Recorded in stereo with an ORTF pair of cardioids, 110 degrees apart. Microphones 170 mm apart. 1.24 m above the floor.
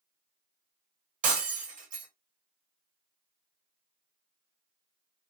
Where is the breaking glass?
55° right, 1.6 m.